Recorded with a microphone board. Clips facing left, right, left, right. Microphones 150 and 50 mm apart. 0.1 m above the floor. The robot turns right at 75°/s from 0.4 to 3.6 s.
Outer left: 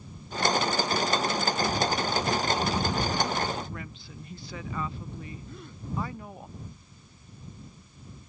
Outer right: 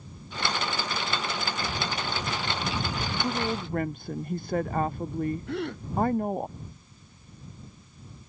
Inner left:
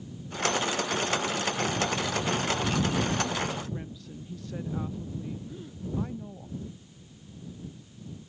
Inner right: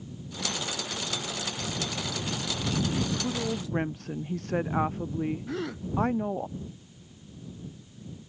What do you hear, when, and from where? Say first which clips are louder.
3.2 s a woman speaking: outer right 2 dB, inner right 1 dB; 25° right (ahead or behind); by 6.5 s 55° right (ahead or behind)
5.5 s a gasp: outer right 14 dB, inner right 9 dB; 85° right